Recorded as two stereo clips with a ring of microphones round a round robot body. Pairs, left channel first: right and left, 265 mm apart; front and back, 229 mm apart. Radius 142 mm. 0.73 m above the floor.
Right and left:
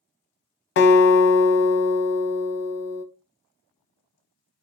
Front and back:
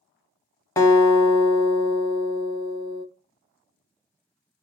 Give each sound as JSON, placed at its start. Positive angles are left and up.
{"t": 0.8, "sound": "a guitar", "azimuth_deg": -75, "distance_m": 0.7}